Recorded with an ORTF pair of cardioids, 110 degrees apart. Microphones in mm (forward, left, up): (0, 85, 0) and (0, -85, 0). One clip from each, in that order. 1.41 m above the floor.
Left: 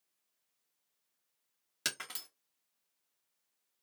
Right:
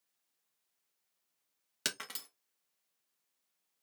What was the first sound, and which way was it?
Breaking glass, 10° right.